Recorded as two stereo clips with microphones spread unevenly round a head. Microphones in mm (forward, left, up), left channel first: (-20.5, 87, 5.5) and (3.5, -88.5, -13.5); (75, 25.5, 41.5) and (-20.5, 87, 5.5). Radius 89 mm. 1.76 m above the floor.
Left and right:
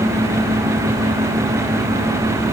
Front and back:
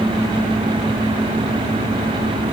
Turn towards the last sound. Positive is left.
No sound to turn to.